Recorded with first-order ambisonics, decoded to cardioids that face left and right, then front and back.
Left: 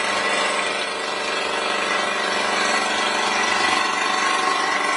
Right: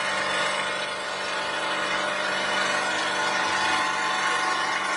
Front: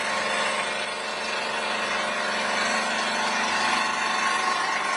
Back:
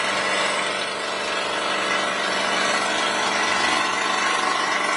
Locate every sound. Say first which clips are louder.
0.0 s an engine running: left 4 dB, back 3 dB; 120° left, 0.9 m